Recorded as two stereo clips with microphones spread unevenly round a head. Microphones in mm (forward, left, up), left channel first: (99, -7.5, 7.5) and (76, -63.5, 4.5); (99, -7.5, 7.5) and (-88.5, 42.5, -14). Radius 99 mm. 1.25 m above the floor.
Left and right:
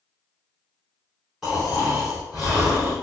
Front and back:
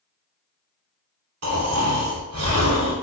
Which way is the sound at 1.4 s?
160° left.